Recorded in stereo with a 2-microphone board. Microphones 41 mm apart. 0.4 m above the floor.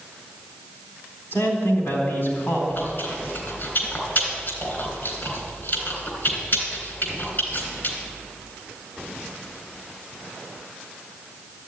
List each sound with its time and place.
1.3 s a man speaking: 60° left (ahead or behind), 4 m
2.7 s chewing: 50° left (ahead or behind), 3.5 m